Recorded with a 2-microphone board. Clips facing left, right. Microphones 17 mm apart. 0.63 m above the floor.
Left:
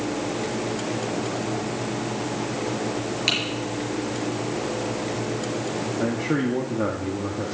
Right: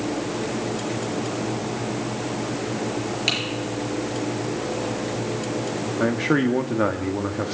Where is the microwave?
I don't hear a microwave.